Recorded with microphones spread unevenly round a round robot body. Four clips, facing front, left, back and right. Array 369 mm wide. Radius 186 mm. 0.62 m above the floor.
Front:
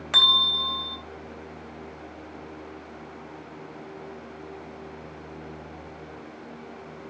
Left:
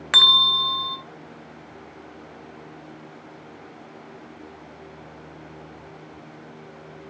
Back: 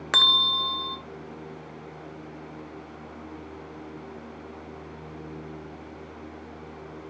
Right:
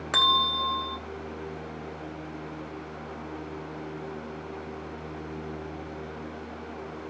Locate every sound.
0.1 s a bell: straight behind, 0.6 m